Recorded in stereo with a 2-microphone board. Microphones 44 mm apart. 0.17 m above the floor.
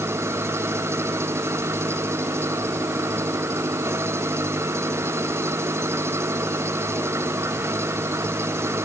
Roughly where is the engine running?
Right.